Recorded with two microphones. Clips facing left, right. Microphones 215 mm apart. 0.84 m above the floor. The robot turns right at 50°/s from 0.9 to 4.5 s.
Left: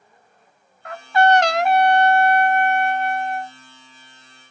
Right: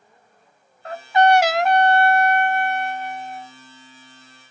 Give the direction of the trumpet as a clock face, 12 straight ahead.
1 o'clock.